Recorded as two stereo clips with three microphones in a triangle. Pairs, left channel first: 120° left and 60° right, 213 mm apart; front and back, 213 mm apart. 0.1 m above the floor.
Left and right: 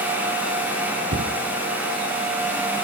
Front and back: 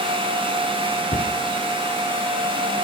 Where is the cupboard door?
55° right, 1.7 m.